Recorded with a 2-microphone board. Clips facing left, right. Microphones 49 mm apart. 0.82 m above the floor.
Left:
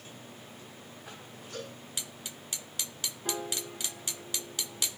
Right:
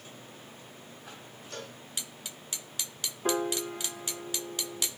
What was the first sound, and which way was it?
A cowbell, 75° right (ahead or behind).